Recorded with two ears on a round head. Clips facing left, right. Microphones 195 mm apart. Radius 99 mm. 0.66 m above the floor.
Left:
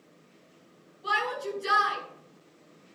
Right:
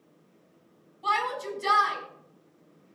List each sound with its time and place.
1.0 s a shout: 80° right, 7 m